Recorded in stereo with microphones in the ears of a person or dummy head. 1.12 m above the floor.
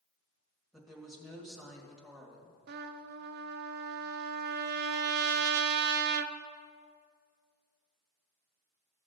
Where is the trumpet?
50° right (ahead or behind), 0.5 m.